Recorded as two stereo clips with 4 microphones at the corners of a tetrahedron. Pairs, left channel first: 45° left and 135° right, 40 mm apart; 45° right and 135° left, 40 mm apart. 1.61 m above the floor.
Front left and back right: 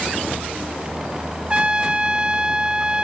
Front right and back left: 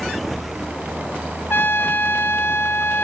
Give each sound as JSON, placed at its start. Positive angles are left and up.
{"t": 1.5, "sound": "a trumpet", "azimuth_deg": -70, "distance_m": 0.8}